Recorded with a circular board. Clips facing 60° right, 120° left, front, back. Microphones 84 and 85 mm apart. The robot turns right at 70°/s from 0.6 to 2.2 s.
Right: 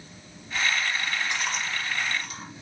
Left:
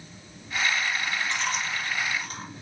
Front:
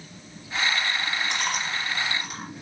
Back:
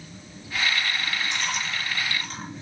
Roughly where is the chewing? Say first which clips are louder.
Left 1 dB, front 1 dB; ahead.